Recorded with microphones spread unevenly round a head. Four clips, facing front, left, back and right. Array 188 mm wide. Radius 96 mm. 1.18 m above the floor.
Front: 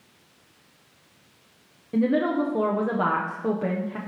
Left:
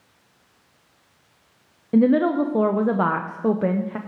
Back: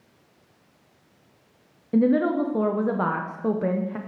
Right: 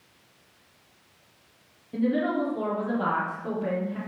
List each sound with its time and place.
1.9 s a woman speaking: 100° left, 0.5 m